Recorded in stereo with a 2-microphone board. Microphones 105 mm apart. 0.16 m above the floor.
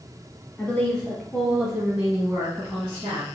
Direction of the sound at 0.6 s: 15° left (ahead or behind).